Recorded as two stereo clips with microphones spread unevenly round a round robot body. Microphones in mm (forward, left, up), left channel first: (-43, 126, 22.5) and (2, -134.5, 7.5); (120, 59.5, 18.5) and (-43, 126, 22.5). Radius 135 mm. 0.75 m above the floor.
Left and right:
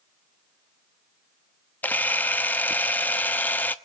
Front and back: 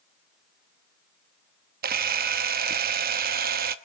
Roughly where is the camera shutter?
Behind.